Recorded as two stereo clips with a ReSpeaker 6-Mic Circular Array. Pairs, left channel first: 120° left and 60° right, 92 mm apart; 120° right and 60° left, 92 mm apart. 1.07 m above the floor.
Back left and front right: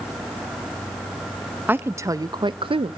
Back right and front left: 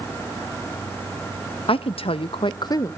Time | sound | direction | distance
1.7 | a woman speaking | 130° right | 0.7 m